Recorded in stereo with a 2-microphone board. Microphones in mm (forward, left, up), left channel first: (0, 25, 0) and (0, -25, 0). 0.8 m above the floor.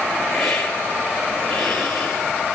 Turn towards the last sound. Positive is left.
turn(degrees=5)  # may be behind; listen again after turning